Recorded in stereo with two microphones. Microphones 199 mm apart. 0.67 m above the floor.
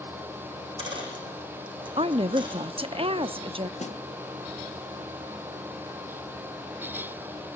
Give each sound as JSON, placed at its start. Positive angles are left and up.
{"t": 0.5, "sound": "a dropped coin", "side_deg": -25, "distance_m": 7.0}
{"t": 2.0, "sound": "a woman speaking", "side_deg": -25, "distance_m": 0.8}
{"t": 3.8, "sound": "a snare drum", "side_deg": 35, "distance_m": 0.9}